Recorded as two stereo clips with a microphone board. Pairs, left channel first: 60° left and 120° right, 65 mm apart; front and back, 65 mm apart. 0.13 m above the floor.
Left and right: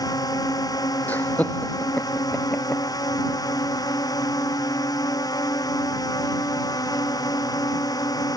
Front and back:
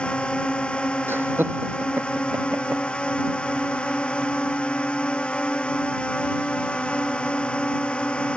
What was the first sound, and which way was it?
A drone, 75° left.